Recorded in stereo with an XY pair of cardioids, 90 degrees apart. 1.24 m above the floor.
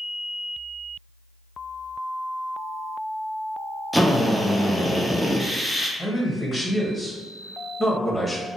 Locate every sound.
3.9 s a drill: 5° right, 0.8 m
6.0 s a man speaking: 20° left, 1.2 m